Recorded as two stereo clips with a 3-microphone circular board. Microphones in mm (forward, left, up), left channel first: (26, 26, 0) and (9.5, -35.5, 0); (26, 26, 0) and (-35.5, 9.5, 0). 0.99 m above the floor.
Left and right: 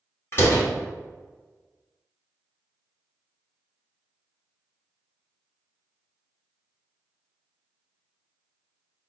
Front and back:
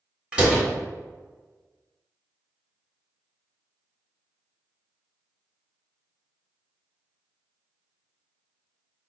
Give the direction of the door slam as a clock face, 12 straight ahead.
8 o'clock.